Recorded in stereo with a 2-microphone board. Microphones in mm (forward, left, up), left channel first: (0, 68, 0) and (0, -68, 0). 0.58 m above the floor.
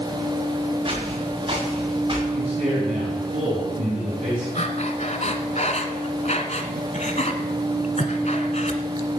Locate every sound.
0.8 s footsteps: 40° right (ahead or behind), 7 m
2.3 s a man speaking: 60° right (ahead or behind), 5 m
4.5 s breathing: 55° left (ahead or behind), 1.5 m